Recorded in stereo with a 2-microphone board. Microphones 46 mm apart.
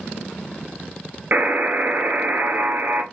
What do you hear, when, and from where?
1.3 s a buzzer: 45° right (ahead or behind), 0.7 m